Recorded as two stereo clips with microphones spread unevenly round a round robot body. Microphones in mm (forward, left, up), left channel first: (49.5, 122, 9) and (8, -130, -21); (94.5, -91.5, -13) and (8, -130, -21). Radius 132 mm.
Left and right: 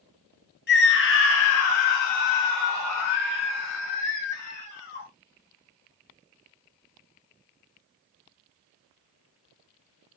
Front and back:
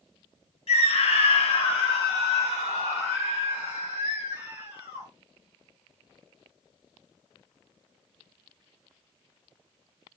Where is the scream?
30° left, 1.2 m; by 5.1 s 140° left, 2 m.